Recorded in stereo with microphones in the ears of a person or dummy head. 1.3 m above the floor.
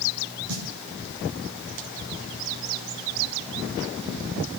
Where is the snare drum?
85° right, 7 m.